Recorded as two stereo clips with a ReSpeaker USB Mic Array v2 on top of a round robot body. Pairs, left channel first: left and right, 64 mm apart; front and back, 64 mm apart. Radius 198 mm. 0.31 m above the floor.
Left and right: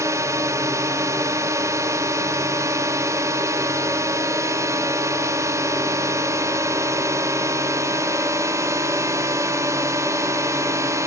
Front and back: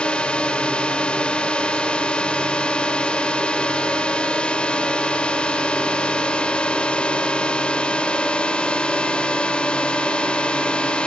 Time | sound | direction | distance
0.0 | a drone | 70° right | ?